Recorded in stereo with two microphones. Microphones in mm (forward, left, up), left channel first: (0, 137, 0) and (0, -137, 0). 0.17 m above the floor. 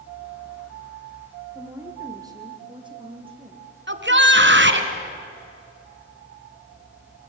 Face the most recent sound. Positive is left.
turn(degrees=-40)  # may be behind; listen again after turning